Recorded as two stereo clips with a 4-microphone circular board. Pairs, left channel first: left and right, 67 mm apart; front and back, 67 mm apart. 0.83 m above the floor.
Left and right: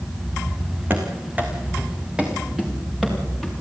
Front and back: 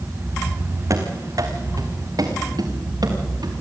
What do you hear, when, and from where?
0.9 s running footsteps: 150° right, 3 m; by 3.5 s 175° right, 5 m